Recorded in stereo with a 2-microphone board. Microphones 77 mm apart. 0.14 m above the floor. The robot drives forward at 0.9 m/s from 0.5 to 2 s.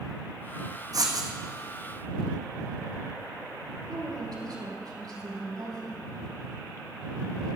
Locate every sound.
0.9 s writing: 55° right (ahead or behind), 3 m; by 1.3 s 60° right (ahead or behind), 2.5 m
3.9 s a woman speaking: 60° right (ahead or behind), 5.5 m